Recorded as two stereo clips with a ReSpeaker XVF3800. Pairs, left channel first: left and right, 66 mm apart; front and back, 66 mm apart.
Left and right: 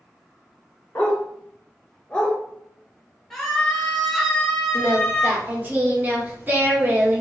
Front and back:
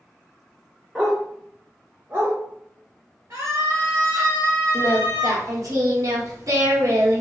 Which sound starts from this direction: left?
A dog barking, at 0.9 s.